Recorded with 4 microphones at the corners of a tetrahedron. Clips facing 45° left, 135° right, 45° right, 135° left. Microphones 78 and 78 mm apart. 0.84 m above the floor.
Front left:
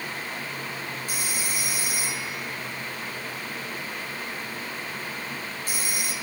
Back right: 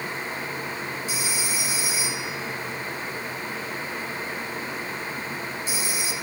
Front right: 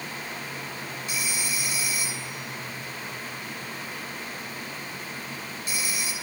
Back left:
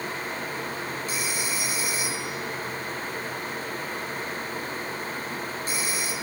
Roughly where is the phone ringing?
Left.